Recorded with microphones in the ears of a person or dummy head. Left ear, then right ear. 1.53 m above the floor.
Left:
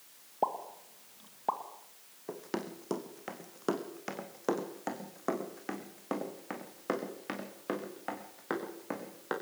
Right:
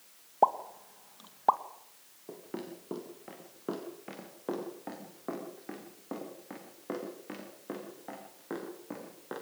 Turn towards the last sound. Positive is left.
turn(degrees=70)  # may be behind; listen again after turning